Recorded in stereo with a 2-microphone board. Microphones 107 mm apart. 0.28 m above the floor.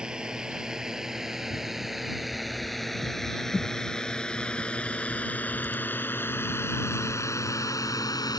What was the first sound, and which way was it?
A drone, 5° right (ahead or behind).